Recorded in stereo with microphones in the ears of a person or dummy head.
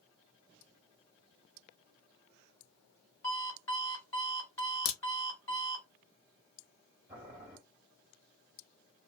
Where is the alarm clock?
10° left (ahead or behind), 1.2 m.